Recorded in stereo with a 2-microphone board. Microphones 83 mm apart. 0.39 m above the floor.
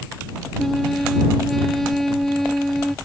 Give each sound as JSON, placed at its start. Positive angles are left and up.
{"t": 0.6, "sound": "a trumpet", "side_deg": 5}